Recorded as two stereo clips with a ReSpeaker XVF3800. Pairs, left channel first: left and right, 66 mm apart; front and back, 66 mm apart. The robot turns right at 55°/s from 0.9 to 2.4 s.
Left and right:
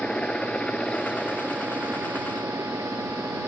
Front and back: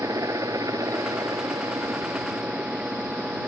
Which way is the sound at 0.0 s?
165° left.